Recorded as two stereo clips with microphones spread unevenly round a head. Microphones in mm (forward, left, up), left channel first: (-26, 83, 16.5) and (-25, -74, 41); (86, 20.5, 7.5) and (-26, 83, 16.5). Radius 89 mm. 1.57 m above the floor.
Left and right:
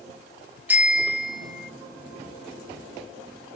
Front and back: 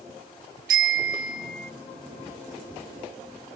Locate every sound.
0.7 s a bicycle bell: 165° right; by 1.7 s straight behind